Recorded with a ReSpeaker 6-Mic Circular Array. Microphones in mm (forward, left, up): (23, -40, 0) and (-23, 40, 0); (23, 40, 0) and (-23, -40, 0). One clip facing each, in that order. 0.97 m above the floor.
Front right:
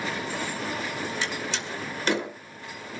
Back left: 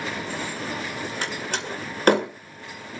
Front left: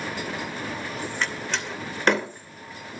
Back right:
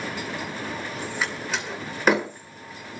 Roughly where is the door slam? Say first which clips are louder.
Back left 2 dB, back right 1 dB; behind left.